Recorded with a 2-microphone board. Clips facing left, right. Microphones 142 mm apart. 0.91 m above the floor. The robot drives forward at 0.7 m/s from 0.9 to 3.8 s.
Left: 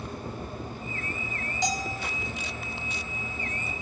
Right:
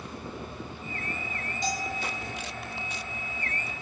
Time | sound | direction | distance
1.6 | a bell | 85° left | 2 m